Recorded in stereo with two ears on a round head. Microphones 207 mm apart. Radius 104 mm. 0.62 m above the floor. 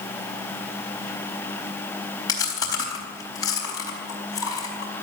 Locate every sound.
2.3 s chewing: 15° left (ahead or behind), 4 m